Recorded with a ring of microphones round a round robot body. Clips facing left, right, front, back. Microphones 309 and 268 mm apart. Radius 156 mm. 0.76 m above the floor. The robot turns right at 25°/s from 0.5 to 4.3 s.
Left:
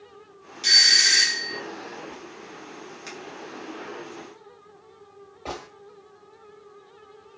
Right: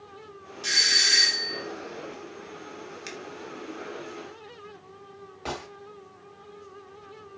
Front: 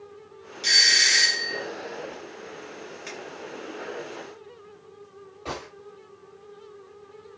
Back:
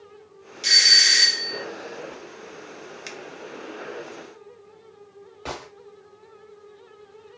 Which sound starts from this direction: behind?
A finger snap, at 3.1 s.